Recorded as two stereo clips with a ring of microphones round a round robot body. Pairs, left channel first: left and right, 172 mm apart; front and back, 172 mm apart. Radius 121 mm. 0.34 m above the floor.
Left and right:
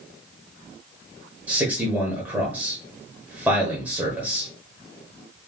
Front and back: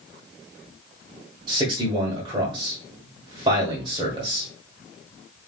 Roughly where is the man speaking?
Behind.